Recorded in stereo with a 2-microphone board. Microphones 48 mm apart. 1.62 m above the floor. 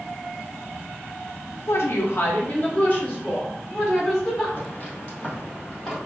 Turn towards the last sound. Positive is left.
turn(degrees=15)  # may be behind; listen again after turning